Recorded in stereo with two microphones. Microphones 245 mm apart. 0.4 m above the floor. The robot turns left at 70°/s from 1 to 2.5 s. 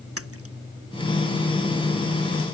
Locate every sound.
0.2 s a splash: 75° right (ahead or behind)